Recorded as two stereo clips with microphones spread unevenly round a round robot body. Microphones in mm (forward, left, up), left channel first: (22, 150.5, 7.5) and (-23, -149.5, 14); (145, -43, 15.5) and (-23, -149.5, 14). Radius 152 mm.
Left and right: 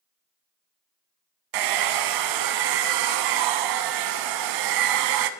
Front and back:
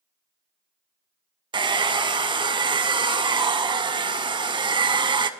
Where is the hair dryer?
80° right, 0.5 m.